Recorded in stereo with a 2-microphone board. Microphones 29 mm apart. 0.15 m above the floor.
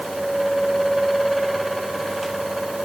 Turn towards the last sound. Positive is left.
No sound to turn to.